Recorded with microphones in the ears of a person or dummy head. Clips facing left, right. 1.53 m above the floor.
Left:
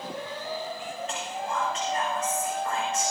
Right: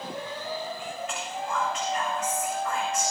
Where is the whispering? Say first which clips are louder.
Left 1 dB; 30° left (ahead or behind), 8 m.